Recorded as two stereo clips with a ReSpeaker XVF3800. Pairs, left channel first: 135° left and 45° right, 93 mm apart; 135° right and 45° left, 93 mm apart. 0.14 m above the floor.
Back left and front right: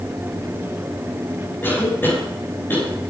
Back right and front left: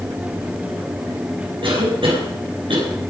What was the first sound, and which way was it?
A cough, 65° left.